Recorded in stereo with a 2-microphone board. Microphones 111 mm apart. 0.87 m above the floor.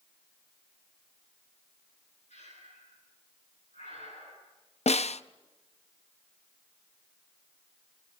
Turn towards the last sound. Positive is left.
turn(degrees=75)  # may be behind; listen again after turning